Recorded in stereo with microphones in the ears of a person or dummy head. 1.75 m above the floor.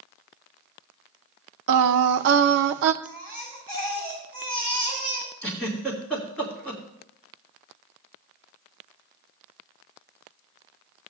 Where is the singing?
60° right (ahead or behind), 0.6 m.